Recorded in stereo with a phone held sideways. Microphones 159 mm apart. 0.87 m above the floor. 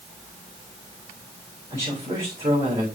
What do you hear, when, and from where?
1.7 s a man speaking: 25° right (ahead or behind), 4.5 m